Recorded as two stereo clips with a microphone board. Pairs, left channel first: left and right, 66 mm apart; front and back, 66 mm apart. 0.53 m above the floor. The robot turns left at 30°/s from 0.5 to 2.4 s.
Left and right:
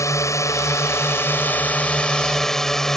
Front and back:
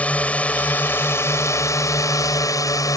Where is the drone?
65° left; by 3.0 s 10° left.